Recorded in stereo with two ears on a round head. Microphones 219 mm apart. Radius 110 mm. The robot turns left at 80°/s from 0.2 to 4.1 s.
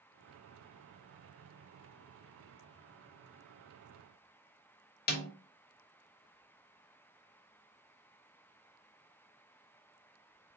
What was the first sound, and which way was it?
A snare drum, 35° left (ahead or behind).